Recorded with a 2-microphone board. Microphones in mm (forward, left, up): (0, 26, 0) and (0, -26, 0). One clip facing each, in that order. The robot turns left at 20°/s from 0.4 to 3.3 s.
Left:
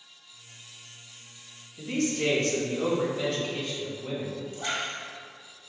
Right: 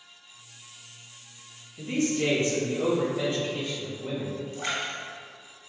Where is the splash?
45° right (ahead or behind), 0.9 m.